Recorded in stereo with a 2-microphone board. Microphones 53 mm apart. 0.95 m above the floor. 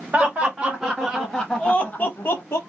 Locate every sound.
0.1 s laughter: 20° right (ahead or behind), 1.7 m; by 2.6 s 55° left (ahead or behind), 1.1 m